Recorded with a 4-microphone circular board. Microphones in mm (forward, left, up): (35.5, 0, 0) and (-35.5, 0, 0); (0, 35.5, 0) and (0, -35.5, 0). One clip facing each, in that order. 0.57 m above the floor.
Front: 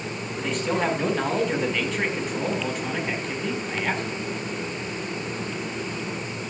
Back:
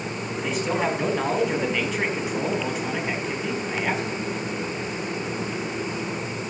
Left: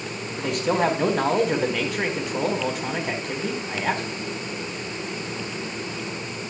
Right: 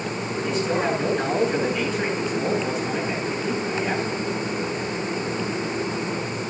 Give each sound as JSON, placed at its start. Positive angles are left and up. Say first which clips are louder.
{"t": 0.4, "sound": "a man speaking", "louder": "even, left 2 dB", "azimuth_deg": 95, "distance_m": 4.5}